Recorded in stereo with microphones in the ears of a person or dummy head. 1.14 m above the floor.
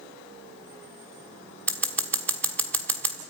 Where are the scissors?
10° left (ahead or behind), 1.3 m.